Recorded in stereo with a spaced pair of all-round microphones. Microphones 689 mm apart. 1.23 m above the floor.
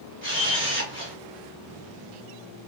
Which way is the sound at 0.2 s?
20° right (ahead or behind).